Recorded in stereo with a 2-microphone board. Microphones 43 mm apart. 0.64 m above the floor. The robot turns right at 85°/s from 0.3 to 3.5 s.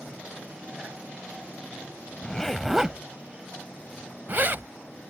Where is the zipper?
25° left (ahead or behind); by 4.7 s 50° right (ahead or behind).